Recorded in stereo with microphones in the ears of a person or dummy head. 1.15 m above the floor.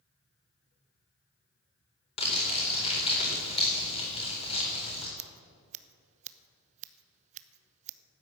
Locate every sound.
2.2 s crumpling: 30° left (ahead or behind), 4 m
5.2 s scissors: 40° right (ahead or behind), 0.7 m